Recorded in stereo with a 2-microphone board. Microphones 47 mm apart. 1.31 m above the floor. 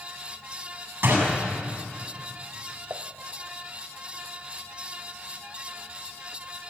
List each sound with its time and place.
1.0 s a door slam: 60° right (ahead or behind), 7.5 m
2.9 s dishes clattering: 65° right (ahead or behind), 0.9 m